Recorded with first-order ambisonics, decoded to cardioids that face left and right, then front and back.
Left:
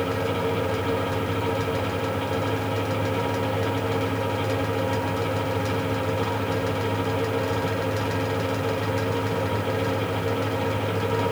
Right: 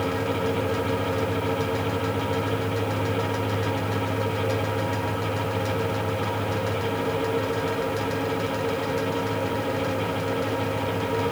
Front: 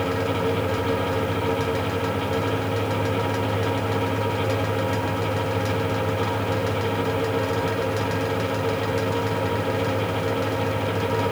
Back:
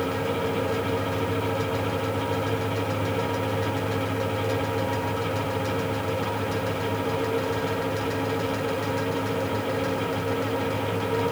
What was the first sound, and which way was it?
Only background noise.